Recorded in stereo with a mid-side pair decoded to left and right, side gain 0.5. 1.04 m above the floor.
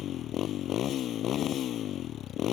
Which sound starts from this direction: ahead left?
A motorcycle, at 0.0 s.